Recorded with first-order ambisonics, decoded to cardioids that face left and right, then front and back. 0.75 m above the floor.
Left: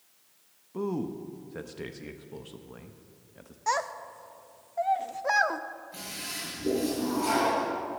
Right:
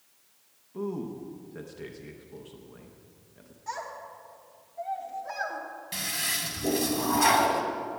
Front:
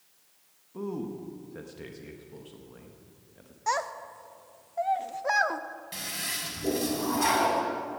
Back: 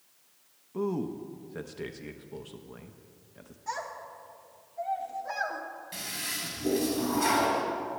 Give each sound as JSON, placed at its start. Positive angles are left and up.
{"t": 0.7, "sound": "a man speaking", "azimuth_deg": 130, "distance_m": 0.6}
{"t": 3.7, "sound": "a child speaking", "azimuth_deg": 45, "distance_m": 0.7}
{"t": 5.9, "sound": "a toilet flushing", "azimuth_deg": -75, "distance_m": 2.0}